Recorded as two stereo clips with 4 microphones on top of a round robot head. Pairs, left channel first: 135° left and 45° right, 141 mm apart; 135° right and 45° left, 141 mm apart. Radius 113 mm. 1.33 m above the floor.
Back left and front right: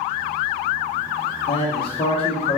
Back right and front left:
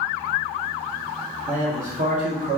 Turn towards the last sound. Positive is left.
turn(degrees=85)